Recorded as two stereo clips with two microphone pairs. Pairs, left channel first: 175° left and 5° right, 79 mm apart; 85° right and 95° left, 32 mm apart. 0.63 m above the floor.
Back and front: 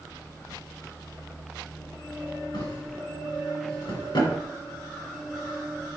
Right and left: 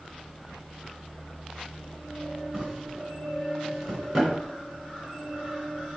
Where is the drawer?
170° left, 2.5 m.